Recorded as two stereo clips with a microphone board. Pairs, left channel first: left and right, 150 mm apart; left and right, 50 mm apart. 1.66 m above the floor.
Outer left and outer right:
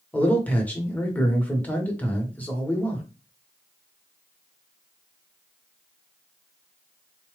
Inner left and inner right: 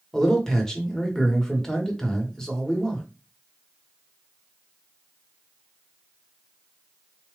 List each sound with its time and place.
0.1 s a man speaking: 10° left (ahead or behind), 1.2 m